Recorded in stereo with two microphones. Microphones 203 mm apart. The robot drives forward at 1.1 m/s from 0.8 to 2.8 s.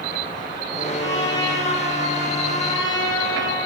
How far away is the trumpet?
About 8.5 m.